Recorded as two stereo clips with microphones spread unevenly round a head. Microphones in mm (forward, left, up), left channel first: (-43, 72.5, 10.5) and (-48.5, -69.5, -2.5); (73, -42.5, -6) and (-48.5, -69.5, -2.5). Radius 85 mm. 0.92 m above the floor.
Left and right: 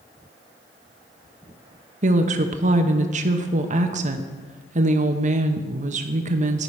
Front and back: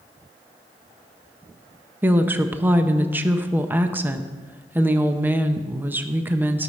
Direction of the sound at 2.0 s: 95° right.